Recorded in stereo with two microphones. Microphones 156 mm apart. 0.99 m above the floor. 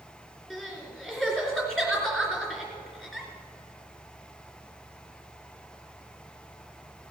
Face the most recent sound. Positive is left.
turn(degrees=-5)  # may be behind; listen again after turning